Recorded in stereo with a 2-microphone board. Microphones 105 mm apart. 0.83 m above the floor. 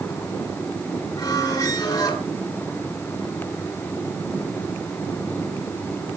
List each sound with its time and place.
1.2 s a squeak: 40° left (ahead or behind), 3.5 m